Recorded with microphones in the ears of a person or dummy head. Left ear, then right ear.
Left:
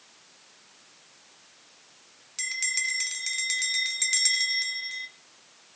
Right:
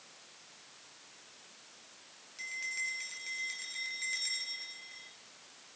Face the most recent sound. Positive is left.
turn(degrees=40)  # may be behind; listen again after turning